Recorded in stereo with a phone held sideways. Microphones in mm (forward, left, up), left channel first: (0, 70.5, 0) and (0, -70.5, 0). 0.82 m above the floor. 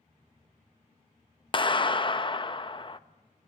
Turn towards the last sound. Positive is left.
turn(degrees=35)  # may be behind; listen again after turning